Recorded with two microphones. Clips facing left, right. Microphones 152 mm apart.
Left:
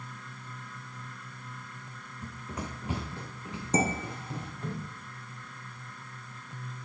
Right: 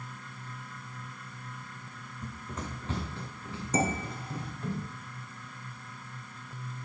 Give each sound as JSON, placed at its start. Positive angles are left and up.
{"t": 2.2, "sound": "running footsteps", "side_deg": 5, "distance_m": 0.7}
{"t": 3.7, "sound": "dishes clattering", "side_deg": 30, "distance_m": 1.5}